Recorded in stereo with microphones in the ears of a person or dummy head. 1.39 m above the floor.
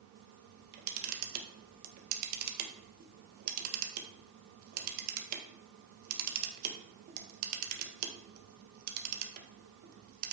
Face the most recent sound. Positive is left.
turn(degrees=-50)  # may be behind; listen again after turning